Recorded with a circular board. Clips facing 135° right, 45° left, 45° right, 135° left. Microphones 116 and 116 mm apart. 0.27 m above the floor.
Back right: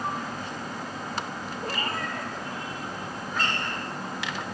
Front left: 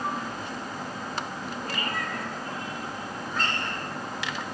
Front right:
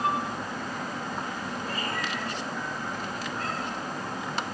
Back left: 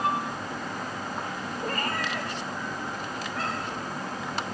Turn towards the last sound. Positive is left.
turn(degrees=135)